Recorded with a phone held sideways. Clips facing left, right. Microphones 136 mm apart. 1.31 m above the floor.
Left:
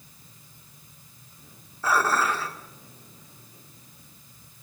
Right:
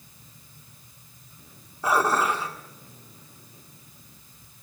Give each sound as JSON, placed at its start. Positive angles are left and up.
{"t": 1.8, "sound": "dishes clattering", "side_deg": -20, "distance_m": 2.5}